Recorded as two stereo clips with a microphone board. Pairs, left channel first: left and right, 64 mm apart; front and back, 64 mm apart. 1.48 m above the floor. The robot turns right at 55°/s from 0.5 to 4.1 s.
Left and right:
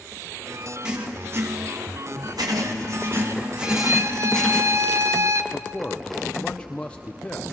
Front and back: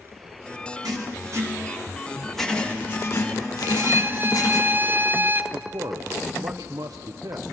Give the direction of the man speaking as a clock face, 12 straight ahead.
7 o'clock.